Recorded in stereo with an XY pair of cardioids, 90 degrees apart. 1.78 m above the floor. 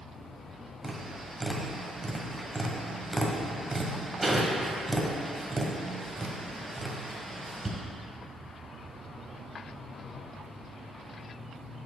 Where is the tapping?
20° right, 1.4 m.